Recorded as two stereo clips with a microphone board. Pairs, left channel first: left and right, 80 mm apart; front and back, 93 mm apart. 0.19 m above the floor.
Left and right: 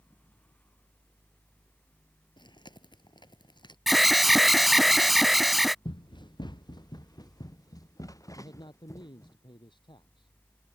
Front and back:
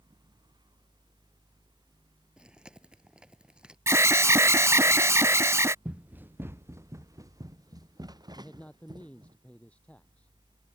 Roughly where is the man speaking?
Left.